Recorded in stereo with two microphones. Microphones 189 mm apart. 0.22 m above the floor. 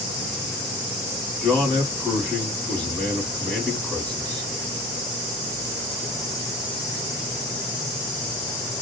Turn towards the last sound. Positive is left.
turn(degrees=5)  # may be behind; listen again after turning